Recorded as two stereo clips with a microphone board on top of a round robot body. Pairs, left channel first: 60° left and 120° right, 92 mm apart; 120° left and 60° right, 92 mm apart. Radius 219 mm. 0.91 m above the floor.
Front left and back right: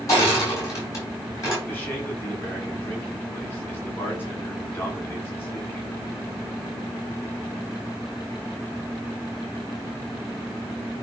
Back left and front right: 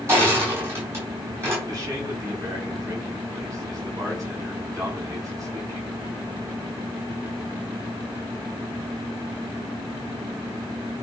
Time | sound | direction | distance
0.1 | crushing | 5° left | 4 m
1.7 | a man speaking | 5° right | 6.5 m